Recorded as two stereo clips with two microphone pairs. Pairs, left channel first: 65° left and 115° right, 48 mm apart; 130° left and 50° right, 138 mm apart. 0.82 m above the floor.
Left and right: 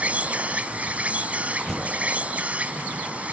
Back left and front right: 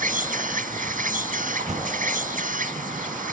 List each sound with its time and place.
0.0 s an insect: 55° right
1.7 s a door slam: 15° right